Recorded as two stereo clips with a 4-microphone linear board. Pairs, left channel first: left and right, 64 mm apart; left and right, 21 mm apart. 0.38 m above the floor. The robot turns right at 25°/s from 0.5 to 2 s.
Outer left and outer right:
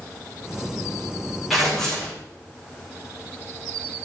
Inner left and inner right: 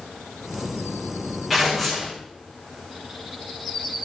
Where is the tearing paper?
Centre (ahead or behind), 4.5 m; by 2.2 s 15° left (ahead or behind), 4.5 m.